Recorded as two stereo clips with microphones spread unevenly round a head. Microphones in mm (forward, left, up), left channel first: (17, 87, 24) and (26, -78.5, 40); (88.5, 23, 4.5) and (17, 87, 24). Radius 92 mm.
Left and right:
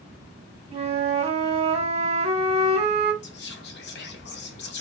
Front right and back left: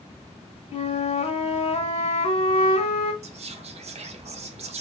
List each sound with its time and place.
0.7 s a flute: 30° right, 0.9 m
3.2 s whispering: 120° left, 0.8 m